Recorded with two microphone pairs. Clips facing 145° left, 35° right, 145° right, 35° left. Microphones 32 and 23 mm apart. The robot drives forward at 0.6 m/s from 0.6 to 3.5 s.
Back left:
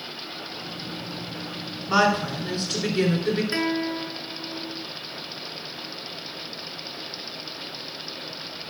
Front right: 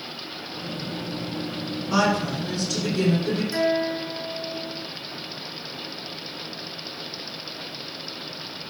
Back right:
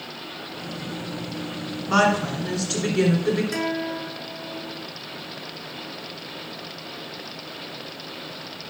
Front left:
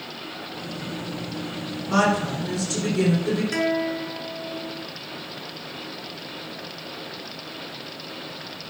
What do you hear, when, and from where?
1.9 s a woman speaking: 170° right, 1.8 m; by 3.4 s 175° right, 2.5 m
3.5 s a guitar: 115° left, 1.1 m